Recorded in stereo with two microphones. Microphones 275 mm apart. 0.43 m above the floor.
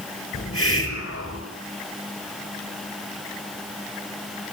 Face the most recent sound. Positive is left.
turn(degrees=50)  # may be behind; listen again after turning